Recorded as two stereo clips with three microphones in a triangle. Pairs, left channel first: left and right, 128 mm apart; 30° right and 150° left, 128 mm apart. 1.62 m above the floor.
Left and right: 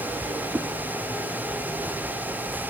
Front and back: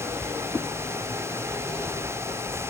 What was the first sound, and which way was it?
A whoosh, 85° right.